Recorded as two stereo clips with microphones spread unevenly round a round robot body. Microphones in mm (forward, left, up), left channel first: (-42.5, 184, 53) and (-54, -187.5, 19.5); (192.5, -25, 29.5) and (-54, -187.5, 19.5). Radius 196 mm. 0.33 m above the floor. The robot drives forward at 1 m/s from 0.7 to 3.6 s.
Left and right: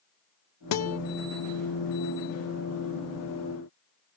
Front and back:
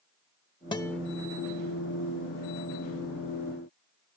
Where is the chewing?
No chewing in this recording.